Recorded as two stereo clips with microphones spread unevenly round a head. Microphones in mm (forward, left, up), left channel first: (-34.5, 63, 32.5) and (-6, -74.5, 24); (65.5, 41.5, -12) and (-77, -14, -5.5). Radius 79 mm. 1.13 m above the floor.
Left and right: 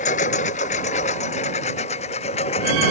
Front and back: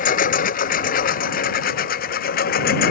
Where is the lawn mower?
55° left; by 2.9 s 50° left.